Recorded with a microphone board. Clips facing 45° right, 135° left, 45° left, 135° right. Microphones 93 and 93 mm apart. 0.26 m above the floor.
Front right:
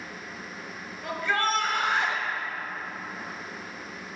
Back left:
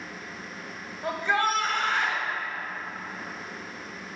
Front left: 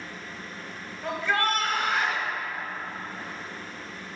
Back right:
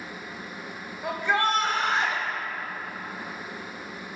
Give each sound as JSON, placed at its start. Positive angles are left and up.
{"t": 1.0, "sound": "a shout", "azimuth_deg": 155, "distance_m": 1.3}